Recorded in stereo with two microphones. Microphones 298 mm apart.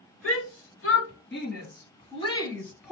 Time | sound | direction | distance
0.2 | a shout | 50° left (ahead or behind) | 2.5 m